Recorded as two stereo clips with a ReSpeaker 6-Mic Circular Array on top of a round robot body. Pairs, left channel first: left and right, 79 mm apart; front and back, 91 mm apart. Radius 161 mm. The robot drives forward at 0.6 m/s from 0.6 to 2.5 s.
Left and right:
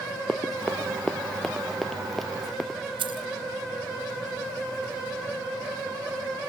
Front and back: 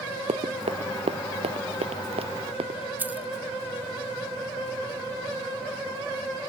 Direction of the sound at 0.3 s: 165° left.